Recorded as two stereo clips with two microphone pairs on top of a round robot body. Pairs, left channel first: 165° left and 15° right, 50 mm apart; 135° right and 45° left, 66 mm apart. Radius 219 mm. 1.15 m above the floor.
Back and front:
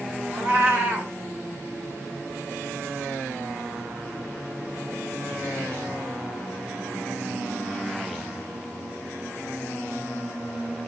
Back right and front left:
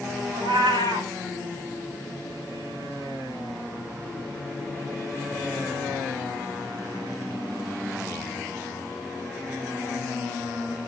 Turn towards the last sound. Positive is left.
turn(degrees=45)